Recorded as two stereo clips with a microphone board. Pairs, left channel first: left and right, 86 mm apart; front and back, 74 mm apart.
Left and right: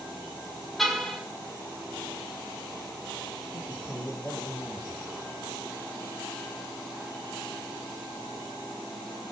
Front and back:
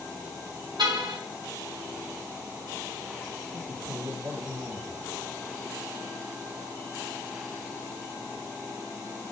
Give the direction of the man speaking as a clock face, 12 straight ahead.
7 o'clock.